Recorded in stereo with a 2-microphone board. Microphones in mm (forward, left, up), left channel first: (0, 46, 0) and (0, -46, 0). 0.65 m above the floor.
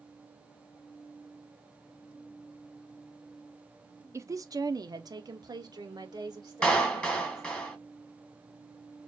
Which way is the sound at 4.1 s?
30° right (ahead or behind).